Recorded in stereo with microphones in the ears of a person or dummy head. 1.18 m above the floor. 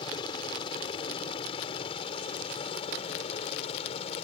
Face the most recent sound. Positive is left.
turn(degrees=30)  # may be behind; listen again after turning